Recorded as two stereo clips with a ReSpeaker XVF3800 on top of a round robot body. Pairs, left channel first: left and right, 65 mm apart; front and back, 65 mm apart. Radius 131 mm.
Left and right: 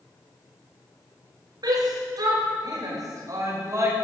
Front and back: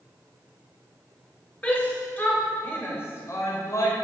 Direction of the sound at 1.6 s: 70° right.